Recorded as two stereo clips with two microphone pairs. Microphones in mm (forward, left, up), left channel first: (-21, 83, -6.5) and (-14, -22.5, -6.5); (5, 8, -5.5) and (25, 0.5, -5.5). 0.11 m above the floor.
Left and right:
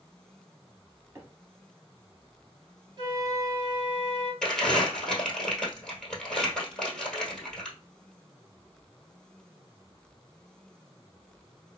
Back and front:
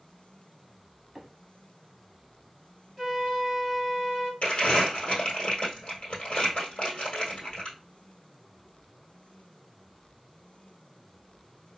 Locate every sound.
1.1 s a microwave: 95° right, 1.4 m
3.0 s a flute: 115° right, 1.5 m
4.4 s crumpling: 175° left, 1.4 m